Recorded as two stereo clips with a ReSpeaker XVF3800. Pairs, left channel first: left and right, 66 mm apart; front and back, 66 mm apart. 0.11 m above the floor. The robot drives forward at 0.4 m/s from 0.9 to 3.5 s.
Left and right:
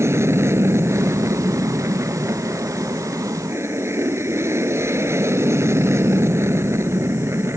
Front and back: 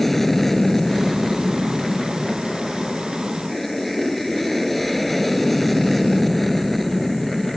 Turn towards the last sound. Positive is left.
turn(degrees=-90)